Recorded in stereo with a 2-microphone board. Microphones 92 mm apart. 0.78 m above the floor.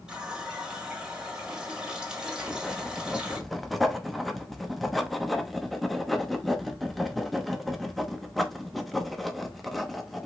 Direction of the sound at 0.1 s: 10° right (ahead or behind).